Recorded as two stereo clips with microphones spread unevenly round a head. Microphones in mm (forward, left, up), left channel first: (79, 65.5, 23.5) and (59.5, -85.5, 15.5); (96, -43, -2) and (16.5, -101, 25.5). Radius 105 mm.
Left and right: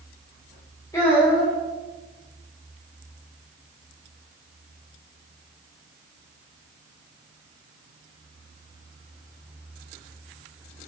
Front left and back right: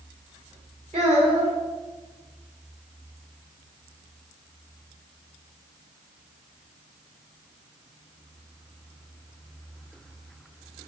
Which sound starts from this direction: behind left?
A child speaking, at 0.9 s.